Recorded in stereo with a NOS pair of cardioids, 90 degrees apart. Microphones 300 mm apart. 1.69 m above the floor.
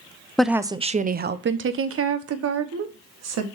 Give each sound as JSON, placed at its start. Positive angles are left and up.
{"t": 0.4, "sound": "a woman speaking", "azimuth_deg": 0, "distance_m": 0.5}